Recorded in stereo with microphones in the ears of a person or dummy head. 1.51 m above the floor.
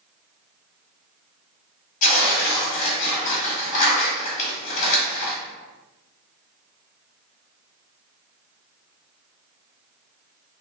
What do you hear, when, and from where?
2.0 s tearing paper: 50° left (ahead or behind), 1.9 m